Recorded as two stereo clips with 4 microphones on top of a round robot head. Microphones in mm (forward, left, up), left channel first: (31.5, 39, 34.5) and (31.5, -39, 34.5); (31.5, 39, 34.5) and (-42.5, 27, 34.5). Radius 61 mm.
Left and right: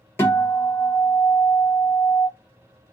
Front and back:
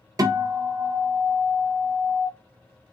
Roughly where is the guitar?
Behind left.